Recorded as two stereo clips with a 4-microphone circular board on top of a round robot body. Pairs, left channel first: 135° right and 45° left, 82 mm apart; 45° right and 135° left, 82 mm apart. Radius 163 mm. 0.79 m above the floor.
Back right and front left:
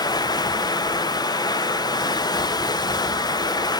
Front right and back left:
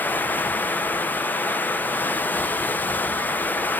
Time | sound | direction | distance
0.0 | running water | 110° right | 1.1 m